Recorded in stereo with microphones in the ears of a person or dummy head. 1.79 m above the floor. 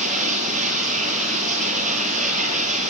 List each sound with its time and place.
0.0 s running water: 40° right (ahead or behind), 8.5 m